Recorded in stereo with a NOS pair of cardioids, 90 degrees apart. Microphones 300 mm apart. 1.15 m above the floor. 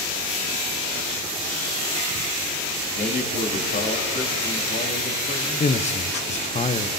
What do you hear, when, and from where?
3.0 s a man speaking: 35° left, 2.5 m
5.6 s a man speaking: 25° left, 0.6 m